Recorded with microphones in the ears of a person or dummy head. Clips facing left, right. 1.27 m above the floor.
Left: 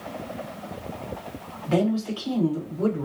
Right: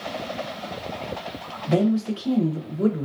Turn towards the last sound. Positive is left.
turn(degrees=-25)  # may be behind; listen again after turning